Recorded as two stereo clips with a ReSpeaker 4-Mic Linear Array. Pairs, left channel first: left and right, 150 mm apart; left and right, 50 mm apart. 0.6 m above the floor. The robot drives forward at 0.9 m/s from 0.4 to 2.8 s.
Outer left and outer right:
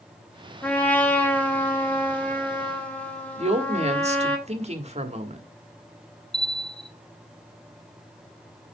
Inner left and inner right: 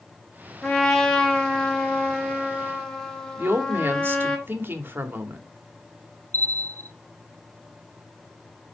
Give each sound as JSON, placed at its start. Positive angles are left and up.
{"t": 0.6, "sound": "a trumpet", "side_deg": 10, "distance_m": 1.5}
{"t": 3.4, "sound": "a woman speaking", "side_deg": -45, "distance_m": 1.5}
{"t": 6.3, "sound": "a bell", "side_deg": 40, "distance_m": 0.6}